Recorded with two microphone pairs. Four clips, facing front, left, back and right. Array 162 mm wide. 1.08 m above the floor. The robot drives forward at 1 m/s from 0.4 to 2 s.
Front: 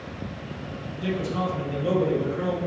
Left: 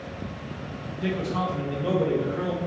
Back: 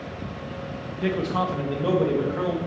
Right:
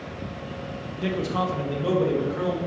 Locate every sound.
1.0 s a man speaking: 145° right, 0.8 m; by 2.6 s 170° right, 1.5 m